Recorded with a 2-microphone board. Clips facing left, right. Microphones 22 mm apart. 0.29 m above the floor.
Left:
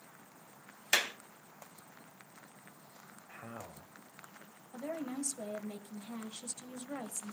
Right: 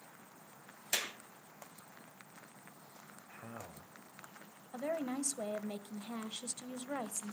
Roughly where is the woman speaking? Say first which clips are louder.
Right 2 dB; right.